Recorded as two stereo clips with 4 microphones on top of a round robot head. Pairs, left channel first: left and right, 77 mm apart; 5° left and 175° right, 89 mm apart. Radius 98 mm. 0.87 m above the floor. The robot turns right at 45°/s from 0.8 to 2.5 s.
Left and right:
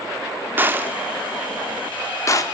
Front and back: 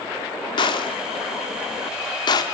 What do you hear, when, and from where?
0.6 s a gunshot: 25° right, 2 m; by 2.4 s 50° left, 2 m